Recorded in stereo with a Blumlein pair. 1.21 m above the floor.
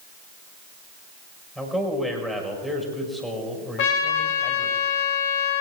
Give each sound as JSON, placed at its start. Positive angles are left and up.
{"t": 1.6, "sound": "a man speaking", "azimuth_deg": 10, "distance_m": 5.5}
{"t": 3.8, "sound": "a trumpet", "azimuth_deg": 45, "distance_m": 2.0}